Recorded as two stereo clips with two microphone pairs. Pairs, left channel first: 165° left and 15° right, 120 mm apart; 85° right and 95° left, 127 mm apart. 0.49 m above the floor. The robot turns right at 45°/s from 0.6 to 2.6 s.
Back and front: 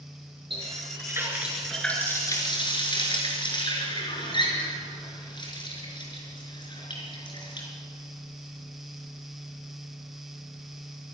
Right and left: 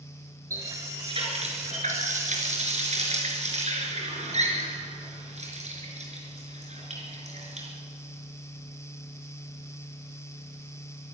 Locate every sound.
0.5 s a running tap: 25° left, 4.5 m; by 7.7 s 115° left, 4.5 m